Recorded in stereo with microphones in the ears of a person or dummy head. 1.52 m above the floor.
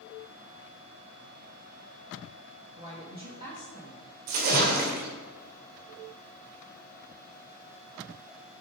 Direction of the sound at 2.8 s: 30° right (ahead or behind).